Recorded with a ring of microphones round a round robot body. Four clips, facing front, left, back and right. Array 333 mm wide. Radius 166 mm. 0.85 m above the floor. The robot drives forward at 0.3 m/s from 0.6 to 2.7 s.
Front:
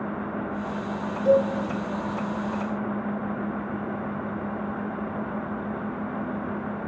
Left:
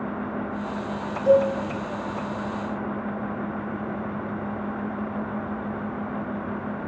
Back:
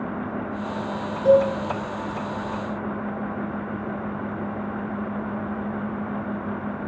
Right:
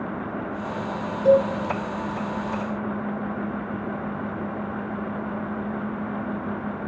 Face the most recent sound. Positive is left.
turn(degrees=-140)